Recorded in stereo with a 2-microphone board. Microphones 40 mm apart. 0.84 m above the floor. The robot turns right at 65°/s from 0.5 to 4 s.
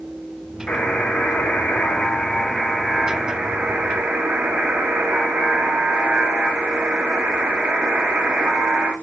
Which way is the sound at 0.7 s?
55° left.